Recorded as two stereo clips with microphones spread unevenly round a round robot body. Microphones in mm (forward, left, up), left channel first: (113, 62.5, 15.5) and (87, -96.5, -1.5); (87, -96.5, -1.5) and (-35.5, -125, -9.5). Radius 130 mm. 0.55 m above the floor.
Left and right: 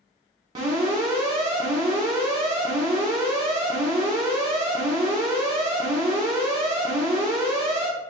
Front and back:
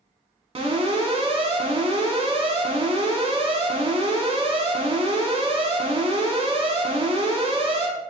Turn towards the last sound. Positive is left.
turn(degrees=-155)